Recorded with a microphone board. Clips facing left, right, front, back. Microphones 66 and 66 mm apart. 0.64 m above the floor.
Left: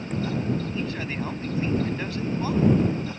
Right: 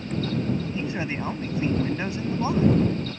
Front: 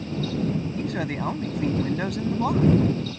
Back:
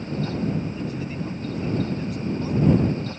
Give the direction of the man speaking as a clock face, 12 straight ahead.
1 o'clock.